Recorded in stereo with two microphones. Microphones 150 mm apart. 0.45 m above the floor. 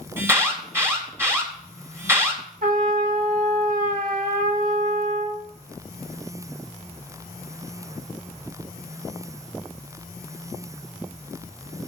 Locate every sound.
0.2 s an alarm: 15° right (ahead or behind), 1.9 m
2.6 s a trumpet: 65° right (ahead or behind), 1.0 m